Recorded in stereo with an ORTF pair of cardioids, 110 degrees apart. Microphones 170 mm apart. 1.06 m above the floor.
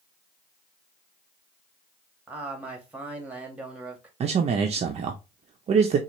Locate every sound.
2.3 s a man speaking: 5° right, 1.5 m
4.2 s a man speaking: 40° right, 0.6 m